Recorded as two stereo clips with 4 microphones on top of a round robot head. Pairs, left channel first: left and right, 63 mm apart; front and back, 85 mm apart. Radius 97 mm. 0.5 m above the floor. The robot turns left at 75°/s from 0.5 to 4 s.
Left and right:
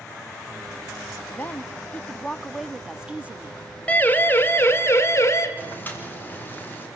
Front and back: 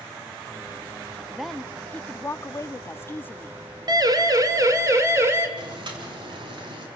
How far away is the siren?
About 2.5 m.